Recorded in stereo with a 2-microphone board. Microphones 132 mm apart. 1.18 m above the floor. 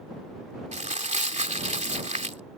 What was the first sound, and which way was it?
Crumpling, 60° right (ahead or behind).